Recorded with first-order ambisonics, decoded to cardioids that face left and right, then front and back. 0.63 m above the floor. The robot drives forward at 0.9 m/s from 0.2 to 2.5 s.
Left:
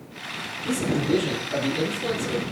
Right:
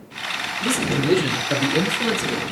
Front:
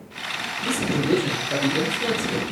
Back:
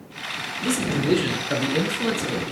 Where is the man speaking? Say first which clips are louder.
Right 3 dB, even; 125° right, 5.5 m; by 2.4 s 135° right, 6.5 m.